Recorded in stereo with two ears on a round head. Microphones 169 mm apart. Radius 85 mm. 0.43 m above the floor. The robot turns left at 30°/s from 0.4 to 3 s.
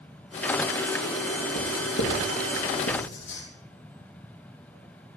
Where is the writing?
65° left (ahead or behind), 4 m; by 3.4 s 70° left (ahead or behind), 4 m.